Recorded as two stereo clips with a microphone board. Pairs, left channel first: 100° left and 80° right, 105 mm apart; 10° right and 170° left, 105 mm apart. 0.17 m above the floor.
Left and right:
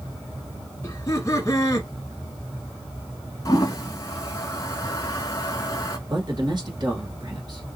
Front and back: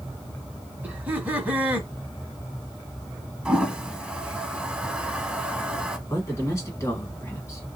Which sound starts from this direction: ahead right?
A man speaking, at 6.1 s.